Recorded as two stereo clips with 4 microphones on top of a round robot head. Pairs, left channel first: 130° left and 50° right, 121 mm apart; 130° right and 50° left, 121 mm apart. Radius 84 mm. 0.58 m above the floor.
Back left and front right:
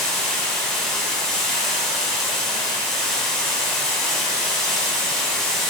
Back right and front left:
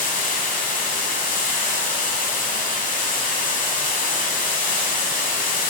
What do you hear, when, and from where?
0.0 s running water: 140° right, 1.7 m